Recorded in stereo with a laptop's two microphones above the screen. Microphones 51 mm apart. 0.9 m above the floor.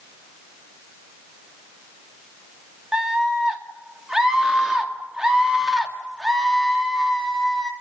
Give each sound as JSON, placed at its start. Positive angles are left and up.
{"t": 2.9, "sound": "a scream", "side_deg": -15, "distance_m": 2.0}